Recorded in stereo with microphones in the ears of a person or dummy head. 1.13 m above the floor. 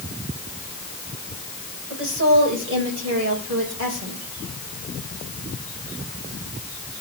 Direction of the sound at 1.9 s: 65° right (ahead or behind).